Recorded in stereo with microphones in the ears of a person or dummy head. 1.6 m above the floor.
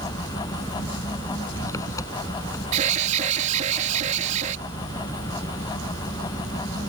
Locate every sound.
0.0 s an engine running: 20° left (ahead or behind)
2.7 s an alarm: 40° right (ahead or behind)